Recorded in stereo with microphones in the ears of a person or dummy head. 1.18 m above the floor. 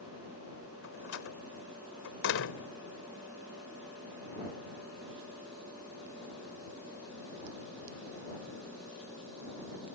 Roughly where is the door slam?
Left.